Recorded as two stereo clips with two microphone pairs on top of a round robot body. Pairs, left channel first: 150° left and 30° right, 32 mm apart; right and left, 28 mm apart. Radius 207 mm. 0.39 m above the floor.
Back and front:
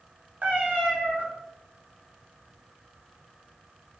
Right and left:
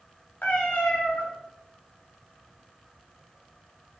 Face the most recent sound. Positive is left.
turn(degrees=-65)